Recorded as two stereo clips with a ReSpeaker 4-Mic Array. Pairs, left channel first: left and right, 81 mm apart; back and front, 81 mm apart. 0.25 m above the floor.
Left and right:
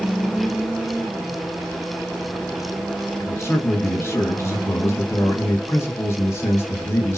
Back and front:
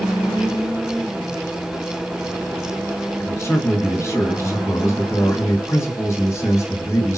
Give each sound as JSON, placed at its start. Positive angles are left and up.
{"t": 3.2, "sound": "a man speaking", "azimuth_deg": 135, "distance_m": 2.5}